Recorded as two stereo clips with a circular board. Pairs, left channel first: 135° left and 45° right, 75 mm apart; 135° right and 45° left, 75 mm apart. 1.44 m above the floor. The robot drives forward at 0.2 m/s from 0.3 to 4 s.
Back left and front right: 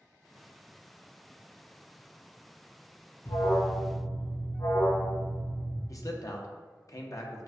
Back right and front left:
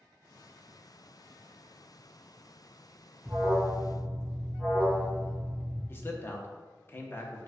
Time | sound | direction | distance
3.2 | an alarm | 110° left | 1.7 m
5.9 | a man speaking | 170° left | 0.6 m